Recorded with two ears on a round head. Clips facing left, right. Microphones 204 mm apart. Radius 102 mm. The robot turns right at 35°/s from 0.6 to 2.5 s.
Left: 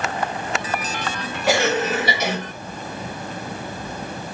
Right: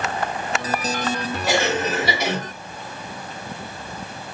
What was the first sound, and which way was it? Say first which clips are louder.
A cough: left 3 dB; 110° left.